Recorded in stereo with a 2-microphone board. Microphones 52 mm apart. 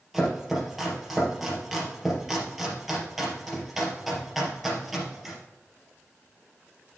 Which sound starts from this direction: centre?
Chopping, at 0.1 s.